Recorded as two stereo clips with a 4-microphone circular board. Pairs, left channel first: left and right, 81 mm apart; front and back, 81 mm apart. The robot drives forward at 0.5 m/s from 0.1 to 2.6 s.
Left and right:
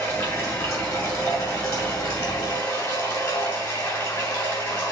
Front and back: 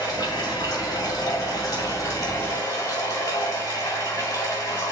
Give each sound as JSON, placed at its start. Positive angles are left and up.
{"t": 0.0, "sound": "running water", "azimuth_deg": 35, "distance_m": 3.5}